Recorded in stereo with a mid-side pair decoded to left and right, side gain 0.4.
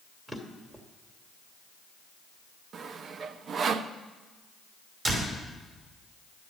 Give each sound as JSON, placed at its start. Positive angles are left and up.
{"t": 0.3, "sound": "a drawer", "azimuth_deg": -15, "distance_m": 2.0}
{"t": 2.7, "sound": "sawing", "azimuth_deg": -60, "distance_m": 0.6}
{"t": 5.0, "sound": "a door slam", "azimuth_deg": -40, "distance_m": 5.0}